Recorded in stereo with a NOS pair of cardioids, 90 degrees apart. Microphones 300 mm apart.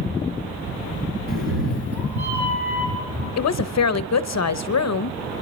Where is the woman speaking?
60° left, 0.9 m.